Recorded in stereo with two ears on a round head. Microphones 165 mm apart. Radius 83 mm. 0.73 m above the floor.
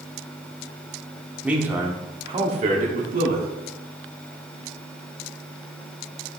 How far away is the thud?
No thud in this recording.